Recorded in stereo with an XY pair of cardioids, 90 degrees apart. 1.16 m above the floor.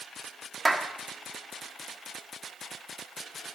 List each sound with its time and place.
0.7 s a clap: 20° right, 1.5 m